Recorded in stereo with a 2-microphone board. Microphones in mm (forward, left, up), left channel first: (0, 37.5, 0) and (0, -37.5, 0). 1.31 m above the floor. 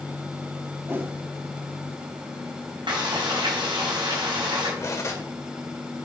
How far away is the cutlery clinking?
About 2.5 m.